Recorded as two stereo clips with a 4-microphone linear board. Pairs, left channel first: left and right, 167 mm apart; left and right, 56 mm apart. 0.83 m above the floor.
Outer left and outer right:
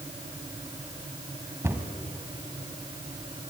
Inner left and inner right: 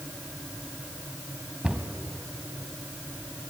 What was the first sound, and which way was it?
A cupboard door, 15° right (ahead or behind).